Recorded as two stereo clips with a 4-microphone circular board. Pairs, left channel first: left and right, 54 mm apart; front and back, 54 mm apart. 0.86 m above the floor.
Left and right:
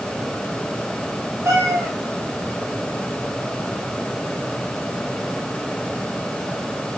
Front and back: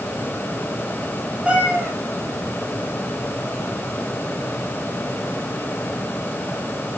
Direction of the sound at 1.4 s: 110° right.